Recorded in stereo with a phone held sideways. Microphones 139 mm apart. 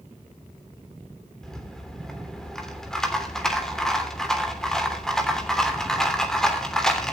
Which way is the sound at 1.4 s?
5° left (ahead or behind).